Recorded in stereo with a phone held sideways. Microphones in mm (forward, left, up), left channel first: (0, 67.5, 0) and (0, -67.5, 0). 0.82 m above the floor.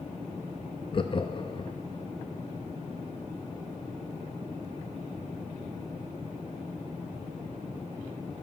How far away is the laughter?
About 0.5 m.